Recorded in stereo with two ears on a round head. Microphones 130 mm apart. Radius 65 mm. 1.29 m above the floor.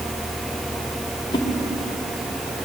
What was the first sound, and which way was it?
A whoosh, 35° left (ahead or behind).